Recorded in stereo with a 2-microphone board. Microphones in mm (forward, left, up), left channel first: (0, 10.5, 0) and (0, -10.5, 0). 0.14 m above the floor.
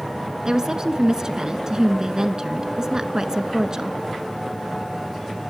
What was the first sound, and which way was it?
A woman speaking, 40° right (ahead or behind).